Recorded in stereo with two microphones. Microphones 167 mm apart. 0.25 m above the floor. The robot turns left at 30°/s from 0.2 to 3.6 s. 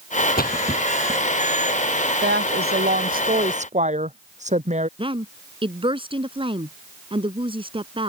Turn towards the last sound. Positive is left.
turn(degrees=-30)  # may be behind; listen again after turning